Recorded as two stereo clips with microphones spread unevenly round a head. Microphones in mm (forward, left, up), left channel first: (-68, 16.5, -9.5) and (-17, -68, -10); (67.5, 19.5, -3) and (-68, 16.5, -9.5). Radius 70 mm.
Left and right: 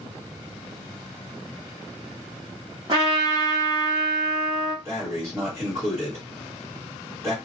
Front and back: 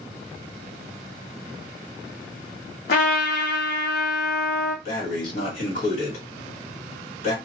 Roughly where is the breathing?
Ahead.